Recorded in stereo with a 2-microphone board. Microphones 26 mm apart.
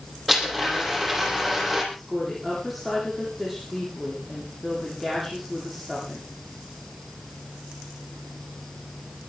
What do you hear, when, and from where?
0.3 s a blender: centre (ahead or behind), 7.5 m
1.9 s a woman speaking: centre (ahead or behind), 9.5 m